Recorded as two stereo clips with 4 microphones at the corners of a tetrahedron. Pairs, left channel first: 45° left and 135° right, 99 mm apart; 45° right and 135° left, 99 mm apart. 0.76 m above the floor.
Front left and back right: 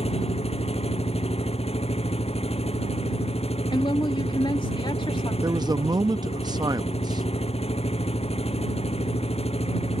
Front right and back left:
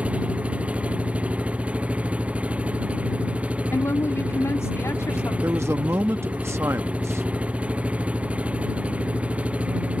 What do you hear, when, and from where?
0.0 s an engine running: 55° left
3.7 s a woman speaking: 15° left
5.4 s a man speaking: 170° right